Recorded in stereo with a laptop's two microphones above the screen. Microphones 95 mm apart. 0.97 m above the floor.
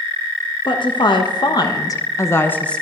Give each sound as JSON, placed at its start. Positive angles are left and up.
{"t": 0.7, "sound": "a woman speaking", "side_deg": 60, "distance_m": 1.4}